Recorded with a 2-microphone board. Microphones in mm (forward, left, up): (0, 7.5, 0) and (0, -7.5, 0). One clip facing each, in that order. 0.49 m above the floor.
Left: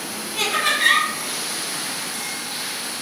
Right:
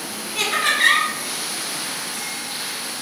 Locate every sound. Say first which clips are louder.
0.3 s laughter: right 1 dB; 25° right (ahead or behind), 1.4 m